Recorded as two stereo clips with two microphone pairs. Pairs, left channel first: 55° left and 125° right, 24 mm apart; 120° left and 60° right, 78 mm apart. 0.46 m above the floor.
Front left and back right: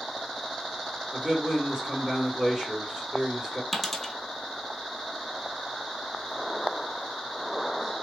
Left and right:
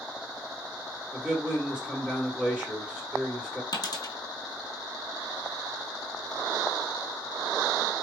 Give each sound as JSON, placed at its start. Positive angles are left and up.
{"t": 1.1, "sound": "a man speaking", "azimuth_deg": -125, "distance_m": 1.4}
{"t": 3.7, "sound": "a dropped coin", "azimuth_deg": 140, "distance_m": 0.8}